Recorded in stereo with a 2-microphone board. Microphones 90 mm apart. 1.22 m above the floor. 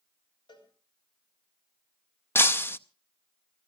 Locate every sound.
0.5 s a cowbell: 60° left (ahead or behind), 3.5 m
2.4 s breaking glass: 25° left (ahead or behind), 0.6 m